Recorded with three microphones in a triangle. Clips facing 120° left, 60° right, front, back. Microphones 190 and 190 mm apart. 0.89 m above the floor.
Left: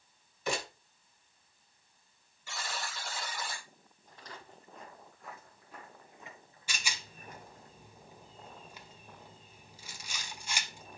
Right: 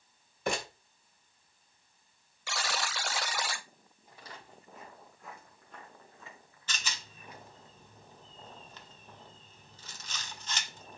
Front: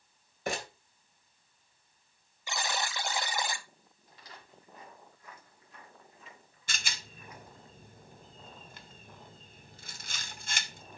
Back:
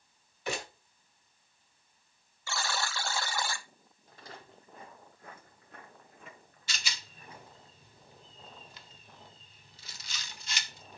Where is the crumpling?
35° right, 2.5 m.